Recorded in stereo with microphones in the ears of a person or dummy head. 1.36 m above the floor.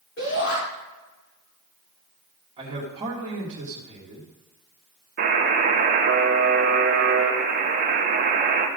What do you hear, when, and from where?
0.2 s a shout: 50° left (ahead or behind), 3.5 m
2.6 s a man speaking: 25° right (ahead or behind), 2 m
5.2 s a buzzer: 50° right (ahead or behind), 1.3 m